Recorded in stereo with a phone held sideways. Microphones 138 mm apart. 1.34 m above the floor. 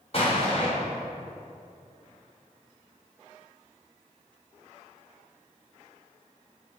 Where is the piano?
I don't hear a piano.